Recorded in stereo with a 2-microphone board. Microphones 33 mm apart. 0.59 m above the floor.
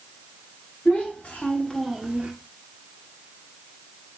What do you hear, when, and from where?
0.8 s a child speaking: 55° left (ahead or behind), 1.4 m; by 2.3 s 30° right (ahead or behind), 0.8 m